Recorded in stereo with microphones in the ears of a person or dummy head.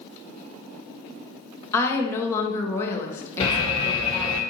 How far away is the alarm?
About 1.3 m.